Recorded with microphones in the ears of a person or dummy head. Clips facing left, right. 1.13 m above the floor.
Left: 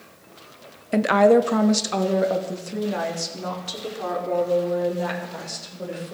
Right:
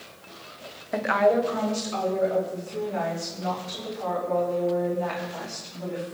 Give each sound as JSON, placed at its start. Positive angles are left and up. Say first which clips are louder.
{"t": 0.9, "sound": "a woman speaking", "louder": "left 6 dB", "side_deg": 30, "distance_m": 0.6}